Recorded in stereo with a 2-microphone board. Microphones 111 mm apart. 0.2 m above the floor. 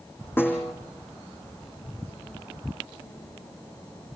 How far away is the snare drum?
About 6 m.